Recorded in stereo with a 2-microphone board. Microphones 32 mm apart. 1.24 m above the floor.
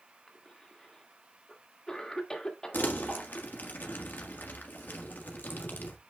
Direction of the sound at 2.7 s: 70° left (ahead or behind).